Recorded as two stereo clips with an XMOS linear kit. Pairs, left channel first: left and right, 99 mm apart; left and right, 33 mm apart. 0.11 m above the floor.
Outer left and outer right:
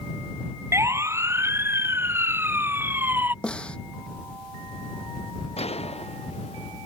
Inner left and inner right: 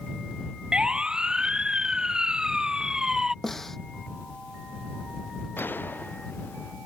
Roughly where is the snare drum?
Centre.